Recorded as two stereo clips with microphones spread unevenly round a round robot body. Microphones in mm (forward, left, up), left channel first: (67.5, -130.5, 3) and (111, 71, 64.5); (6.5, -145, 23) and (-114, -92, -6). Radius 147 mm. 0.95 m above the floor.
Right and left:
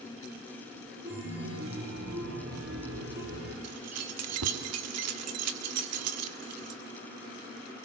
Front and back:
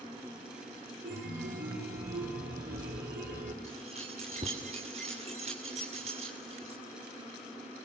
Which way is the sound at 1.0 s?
130° left.